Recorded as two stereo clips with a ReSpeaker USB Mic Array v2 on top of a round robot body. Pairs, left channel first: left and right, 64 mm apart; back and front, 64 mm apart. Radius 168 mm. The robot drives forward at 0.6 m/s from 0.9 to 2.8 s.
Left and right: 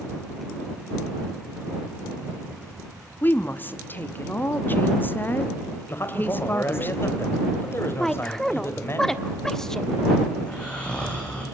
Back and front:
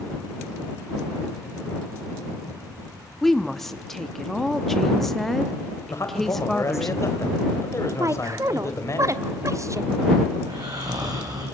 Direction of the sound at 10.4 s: 15° left.